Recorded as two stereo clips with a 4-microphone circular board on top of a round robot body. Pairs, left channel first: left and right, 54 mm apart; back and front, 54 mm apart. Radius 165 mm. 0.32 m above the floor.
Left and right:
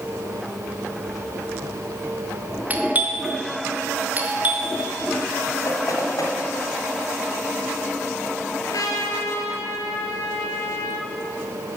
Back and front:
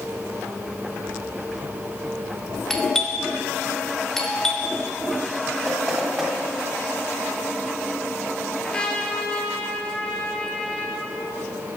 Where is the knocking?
85° left, 2.0 m.